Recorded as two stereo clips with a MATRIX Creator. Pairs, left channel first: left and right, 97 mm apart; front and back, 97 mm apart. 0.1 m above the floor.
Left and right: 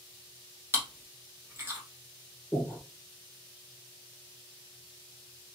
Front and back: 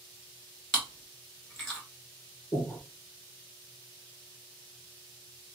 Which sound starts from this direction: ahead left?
Breathing, at 2.5 s.